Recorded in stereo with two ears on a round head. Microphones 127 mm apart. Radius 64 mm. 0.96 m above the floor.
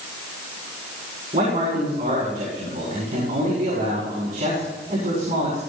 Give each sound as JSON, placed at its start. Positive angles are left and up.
{"t": 1.3, "sound": "a man speaking", "side_deg": -50, "distance_m": 7.5}